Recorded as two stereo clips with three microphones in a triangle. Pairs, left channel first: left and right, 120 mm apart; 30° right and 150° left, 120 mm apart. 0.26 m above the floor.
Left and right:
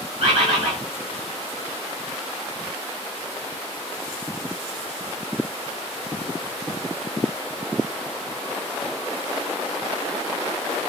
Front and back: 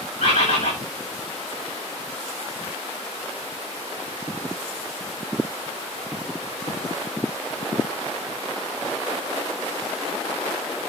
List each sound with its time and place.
0.2 s a bird: 55° right, 8.5 m